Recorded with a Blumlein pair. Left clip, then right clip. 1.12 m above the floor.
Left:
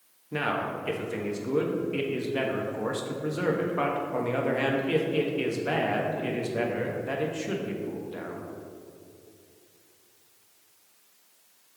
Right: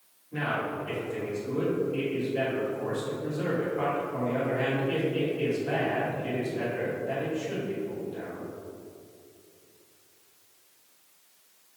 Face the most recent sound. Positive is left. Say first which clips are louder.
# left 1 dB
turn(degrees=55)